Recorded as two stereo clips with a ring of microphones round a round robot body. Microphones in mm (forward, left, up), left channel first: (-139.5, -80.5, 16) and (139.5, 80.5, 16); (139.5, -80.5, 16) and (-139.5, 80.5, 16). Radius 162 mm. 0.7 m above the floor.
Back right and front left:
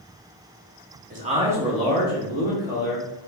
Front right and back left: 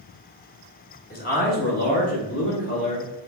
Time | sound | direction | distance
1.1 | a man speaking | straight ahead | 1.2 m